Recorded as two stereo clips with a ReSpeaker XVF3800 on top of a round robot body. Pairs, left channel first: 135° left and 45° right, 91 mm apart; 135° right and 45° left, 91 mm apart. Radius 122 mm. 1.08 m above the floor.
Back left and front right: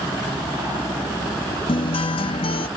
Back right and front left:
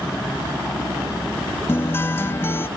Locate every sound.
1.7 s a guitar: 160° left